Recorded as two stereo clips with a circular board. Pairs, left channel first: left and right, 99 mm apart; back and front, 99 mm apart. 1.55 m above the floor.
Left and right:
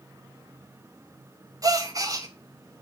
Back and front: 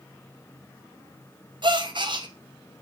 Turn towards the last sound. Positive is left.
turn(degrees=-40)